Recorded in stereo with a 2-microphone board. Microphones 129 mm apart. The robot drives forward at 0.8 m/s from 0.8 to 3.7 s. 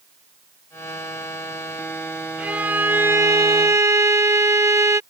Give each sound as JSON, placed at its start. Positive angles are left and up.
{"t": 2.4, "sound": "a violin", "side_deg": -10}